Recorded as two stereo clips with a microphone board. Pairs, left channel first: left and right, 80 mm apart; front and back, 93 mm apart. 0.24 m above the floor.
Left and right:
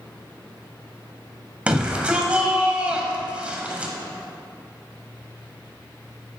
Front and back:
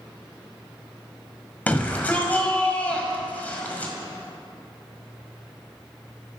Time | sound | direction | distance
1.7 | a shout | 40° right | 1.3 m